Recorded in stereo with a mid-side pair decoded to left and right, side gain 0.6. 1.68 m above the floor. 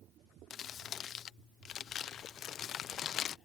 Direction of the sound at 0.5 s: 45° left.